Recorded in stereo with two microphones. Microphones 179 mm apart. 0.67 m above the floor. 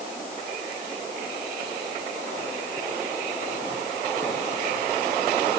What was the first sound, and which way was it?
Only background noise.